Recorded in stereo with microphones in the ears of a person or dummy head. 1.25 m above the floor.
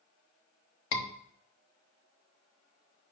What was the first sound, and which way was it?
A scream, 70° left (ahead or behind).